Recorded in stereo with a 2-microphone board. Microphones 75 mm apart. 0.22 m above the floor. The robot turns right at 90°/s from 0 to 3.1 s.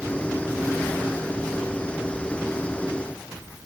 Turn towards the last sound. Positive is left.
No sound to turn to.